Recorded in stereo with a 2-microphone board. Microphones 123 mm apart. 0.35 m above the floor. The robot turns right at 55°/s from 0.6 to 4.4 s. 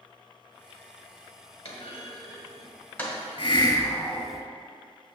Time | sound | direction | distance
1.6 | a clunk | 55° left (ahead or behind) | 1.6 m
3.4 | a hiss | 130° left | 0.7 m